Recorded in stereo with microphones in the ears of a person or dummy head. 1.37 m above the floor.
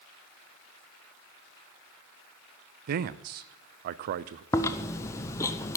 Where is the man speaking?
45° right (ahead or behind), 0.5 m.